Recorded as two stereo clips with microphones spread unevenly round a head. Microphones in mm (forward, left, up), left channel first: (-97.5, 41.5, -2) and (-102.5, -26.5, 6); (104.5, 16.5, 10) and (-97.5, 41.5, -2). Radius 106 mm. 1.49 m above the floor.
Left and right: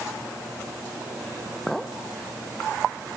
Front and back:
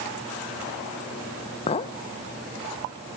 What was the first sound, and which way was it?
A clink, 15° right.